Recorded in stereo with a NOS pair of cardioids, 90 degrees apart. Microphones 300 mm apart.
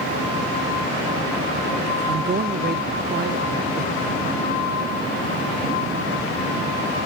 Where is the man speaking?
35° right.